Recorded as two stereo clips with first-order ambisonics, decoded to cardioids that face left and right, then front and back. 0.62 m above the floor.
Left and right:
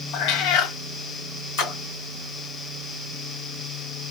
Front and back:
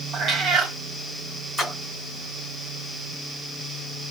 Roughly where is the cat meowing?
Behind left.